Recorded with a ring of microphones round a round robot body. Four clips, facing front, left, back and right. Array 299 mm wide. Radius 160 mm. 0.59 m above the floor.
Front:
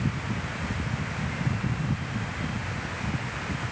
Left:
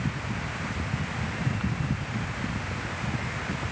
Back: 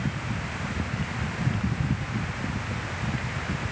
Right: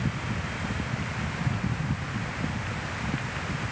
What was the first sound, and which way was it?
Only background noise.